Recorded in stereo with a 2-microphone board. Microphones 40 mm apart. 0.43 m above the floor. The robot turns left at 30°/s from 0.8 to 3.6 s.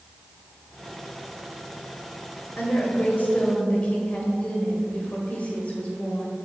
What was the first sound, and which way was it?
A woman speaking, 75° left.